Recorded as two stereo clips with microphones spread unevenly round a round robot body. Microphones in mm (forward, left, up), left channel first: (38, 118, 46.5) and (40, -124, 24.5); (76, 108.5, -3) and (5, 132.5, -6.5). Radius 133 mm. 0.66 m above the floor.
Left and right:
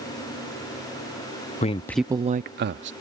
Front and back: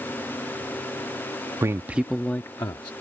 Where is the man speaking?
145° left; by 2.9 s 60° right.